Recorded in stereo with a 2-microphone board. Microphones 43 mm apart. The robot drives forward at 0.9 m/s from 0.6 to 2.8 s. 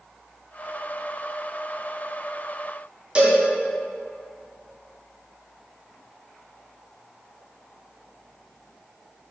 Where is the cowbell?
25° right (ahead or behind), 1.9 m.